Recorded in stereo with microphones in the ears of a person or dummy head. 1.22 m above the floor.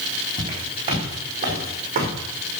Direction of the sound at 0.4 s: 30° right (ahead or behind).